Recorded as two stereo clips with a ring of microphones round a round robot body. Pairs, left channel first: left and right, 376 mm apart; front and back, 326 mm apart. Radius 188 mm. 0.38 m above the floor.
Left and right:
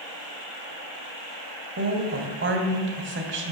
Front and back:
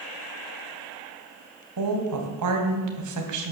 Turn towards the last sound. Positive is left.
turn(degrees=-145)